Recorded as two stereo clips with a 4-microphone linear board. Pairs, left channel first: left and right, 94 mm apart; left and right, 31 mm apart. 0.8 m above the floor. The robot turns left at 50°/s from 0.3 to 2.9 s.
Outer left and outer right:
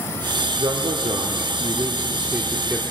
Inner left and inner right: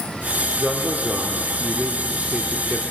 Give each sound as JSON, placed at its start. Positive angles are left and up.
{"t": 0.6, "sound": "a man speaking", "azimuth_deg": -65, "distance_m": 2.5}